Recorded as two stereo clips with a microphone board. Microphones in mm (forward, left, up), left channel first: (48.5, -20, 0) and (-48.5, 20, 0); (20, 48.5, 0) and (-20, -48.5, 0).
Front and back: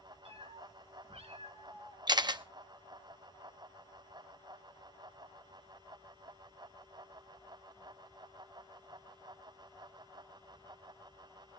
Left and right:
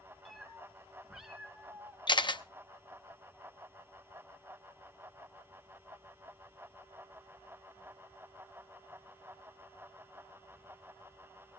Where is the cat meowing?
155° left, 2 m; by 2.0 s 165° left, 3 m.